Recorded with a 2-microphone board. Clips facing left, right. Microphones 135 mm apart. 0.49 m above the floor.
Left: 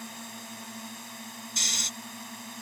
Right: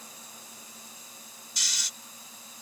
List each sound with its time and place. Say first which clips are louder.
0.0 s a drone: left 8 dB; 70° left (ahead or behind)
1.6 s snoring: left 3 dB; 55° left (ahead or behind)